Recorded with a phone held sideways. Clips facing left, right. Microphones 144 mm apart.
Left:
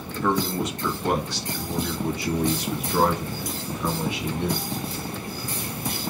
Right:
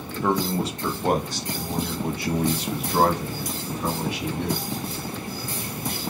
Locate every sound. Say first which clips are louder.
0.2 s a man speaking: even; 20° right (ahead or behind), 0.8 m; by 4.7 s 70° right (ahead or behind), 2.5 m